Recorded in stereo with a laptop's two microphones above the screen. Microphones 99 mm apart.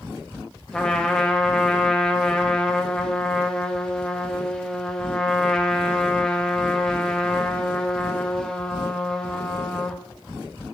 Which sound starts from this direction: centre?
A trumpet, at 0.7 s.